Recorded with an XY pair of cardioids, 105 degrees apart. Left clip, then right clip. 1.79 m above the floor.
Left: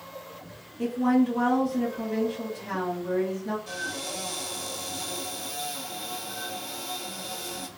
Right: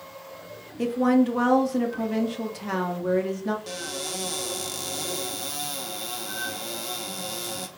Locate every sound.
0.8 s a woman speaking: 55° right, 0.9 m
3.7 s a cupboard door: 65° right, 1.1 m